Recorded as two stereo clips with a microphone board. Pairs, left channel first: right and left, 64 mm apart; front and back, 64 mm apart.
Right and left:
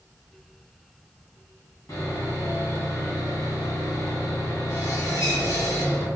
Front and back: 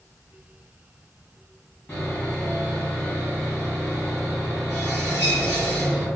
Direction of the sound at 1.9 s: 60° right.